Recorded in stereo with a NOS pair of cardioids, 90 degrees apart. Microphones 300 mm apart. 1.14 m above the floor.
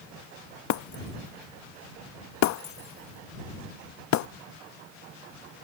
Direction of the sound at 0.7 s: 70° left.